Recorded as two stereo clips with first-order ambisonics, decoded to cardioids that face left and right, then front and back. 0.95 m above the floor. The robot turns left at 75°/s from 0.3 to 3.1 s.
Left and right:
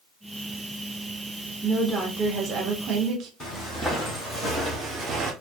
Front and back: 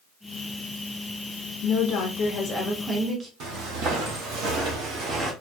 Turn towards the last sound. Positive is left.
turn(degrees=-140)